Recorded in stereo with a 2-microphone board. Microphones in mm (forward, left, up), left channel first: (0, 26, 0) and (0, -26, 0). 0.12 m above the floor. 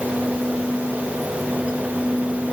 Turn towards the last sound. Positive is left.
No sound to turn to.